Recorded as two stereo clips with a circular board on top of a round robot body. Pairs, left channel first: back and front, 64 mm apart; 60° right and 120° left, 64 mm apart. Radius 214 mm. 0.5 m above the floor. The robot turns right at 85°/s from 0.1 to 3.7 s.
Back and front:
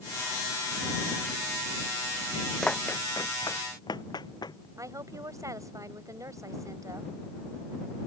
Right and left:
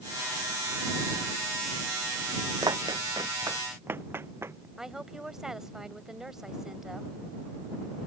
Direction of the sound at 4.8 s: 40° left.